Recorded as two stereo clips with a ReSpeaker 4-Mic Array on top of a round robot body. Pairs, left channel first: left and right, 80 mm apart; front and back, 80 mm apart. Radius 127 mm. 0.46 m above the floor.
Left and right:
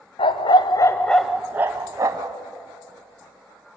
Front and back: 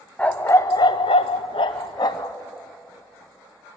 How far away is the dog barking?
About 0.8 m.